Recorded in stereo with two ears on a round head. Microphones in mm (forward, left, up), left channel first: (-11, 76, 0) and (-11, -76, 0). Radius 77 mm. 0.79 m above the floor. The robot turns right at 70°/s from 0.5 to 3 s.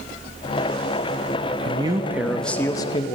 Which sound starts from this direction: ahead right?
A man speaking, at 1.6 s.